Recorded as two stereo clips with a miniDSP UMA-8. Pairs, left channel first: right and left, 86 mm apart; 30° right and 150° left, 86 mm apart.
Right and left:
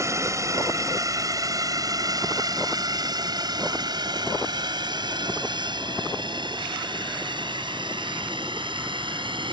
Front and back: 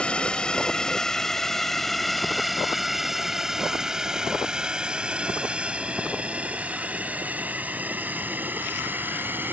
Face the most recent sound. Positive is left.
turn(degrees=85)